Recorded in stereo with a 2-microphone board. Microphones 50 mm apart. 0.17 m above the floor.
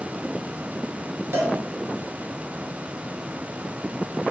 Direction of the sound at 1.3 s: 50° right (ahead or behind).